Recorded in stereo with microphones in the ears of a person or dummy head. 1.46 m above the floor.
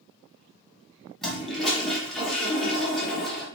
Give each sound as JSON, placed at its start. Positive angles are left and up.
{"t": 1.2, "sound": "a toilet flushing", "side_deg": 5, "distance_m": 0.8}